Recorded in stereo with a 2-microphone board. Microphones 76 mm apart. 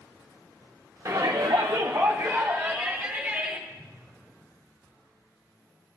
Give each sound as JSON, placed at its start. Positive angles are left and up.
{"t": 1.1, "sound": "a shout", "side_deg": -35, "distance_m": 0.8}
{"t": 3.7, "sound": "a whoosh", "side_deg": -5, "distance_m": 3.0}